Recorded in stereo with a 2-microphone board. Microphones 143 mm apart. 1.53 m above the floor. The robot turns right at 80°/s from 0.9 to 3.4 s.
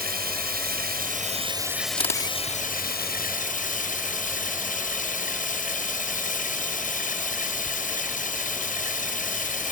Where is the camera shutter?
35° left; by 2.4 s 65° left.